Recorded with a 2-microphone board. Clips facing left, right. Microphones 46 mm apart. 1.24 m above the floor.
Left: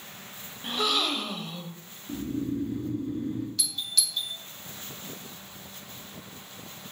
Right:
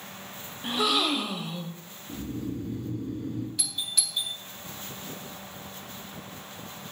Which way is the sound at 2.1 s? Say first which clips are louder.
Left 4 dB; 50° left (ahead or behind).